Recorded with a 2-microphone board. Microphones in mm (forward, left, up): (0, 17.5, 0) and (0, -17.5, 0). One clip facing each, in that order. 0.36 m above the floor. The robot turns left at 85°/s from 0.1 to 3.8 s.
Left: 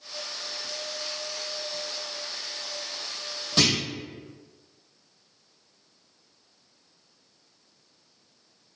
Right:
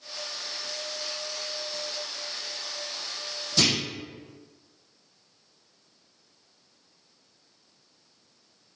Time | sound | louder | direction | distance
3.6 | a clunk | left 1 dB | 45° left (ahead or behind) | 1.1 m